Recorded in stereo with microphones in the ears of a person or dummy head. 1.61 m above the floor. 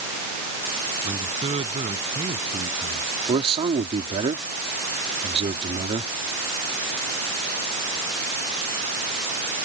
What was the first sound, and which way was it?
A man speaking, 30° right (ahead or behind).